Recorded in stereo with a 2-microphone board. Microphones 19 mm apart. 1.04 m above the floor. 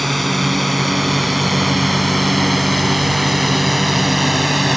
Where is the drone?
5° left (ahead or behind).